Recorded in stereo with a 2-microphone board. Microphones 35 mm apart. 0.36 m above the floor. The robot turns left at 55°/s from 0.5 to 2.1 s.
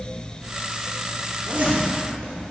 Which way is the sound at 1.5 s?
35° right (ahead or behind).